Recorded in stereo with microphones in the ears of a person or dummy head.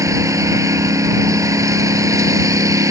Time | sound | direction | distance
0.0 | a lawn mower | 25° right (ahead or behind) | ?